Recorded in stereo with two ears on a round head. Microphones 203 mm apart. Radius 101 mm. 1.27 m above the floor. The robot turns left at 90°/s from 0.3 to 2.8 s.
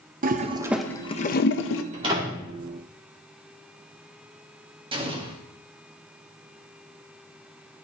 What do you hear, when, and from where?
0.2 s a toilet flushing: 40° right (ahead or behind), 0.6 m; by 1.8 s 60° left (ahead or behind), 0.6 m
1.9 s a door slam: 35° right (ahead or behind), 2 m; by 2.5 s 15° left (ahead or behind), 2 m
4.9 s an explosion: 25° right (ahead or behind), 1.3 m